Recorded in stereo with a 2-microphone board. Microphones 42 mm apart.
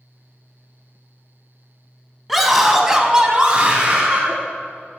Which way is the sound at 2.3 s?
Centre (ahead or behind).